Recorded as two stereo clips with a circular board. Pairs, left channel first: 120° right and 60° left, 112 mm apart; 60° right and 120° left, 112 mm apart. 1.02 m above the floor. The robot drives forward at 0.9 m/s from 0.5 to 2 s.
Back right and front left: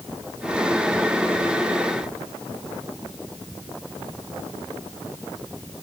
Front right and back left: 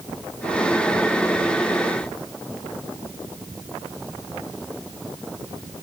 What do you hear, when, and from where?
Only background noise.